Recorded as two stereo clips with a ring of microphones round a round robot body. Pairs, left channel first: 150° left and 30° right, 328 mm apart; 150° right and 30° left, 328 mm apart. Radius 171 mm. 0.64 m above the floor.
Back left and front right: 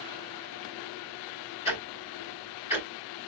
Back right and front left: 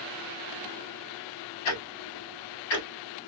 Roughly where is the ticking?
Behind right.